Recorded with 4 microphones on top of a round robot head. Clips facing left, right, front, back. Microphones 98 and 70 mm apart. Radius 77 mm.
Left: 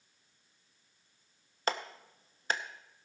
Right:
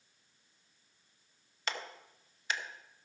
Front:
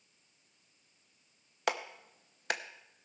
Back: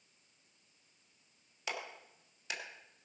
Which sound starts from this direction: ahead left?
A clap, at 1.7 s.